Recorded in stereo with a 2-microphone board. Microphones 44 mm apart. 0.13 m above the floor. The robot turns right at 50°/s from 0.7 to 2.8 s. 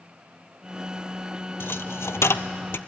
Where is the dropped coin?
55° left (ahead or behind), 0.6 m; by 2.8 s 60° left (ahead or behind), 0.6 m.